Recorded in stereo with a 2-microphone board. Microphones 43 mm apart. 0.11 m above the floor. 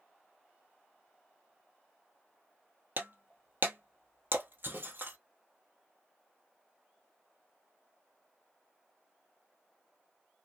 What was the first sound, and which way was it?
Breaking glass, 55° right (ahead or behind).